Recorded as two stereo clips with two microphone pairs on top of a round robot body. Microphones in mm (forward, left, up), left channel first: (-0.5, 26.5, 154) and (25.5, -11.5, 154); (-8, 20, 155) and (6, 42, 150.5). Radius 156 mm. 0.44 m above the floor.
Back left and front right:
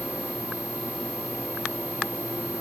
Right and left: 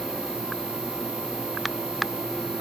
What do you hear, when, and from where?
Only background noise.